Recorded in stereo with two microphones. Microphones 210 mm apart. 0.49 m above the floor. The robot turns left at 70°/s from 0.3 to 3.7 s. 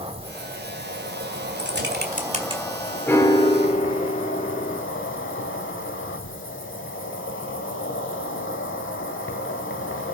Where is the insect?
30° right, 1.5 m; by 10.2 s 90° left, 1.5 m.